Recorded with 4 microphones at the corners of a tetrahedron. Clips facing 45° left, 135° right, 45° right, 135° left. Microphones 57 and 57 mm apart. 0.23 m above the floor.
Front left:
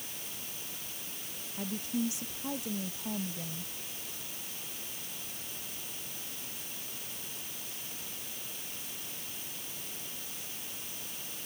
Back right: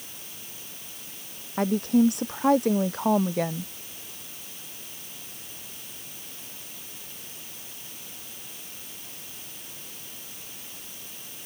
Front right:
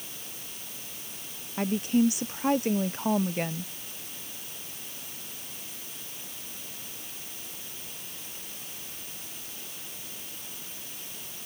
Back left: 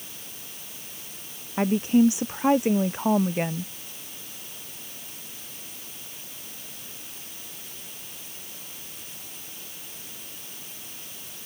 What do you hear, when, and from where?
1.6 s a woman speaking: 160° right; by 3.7 s 150° right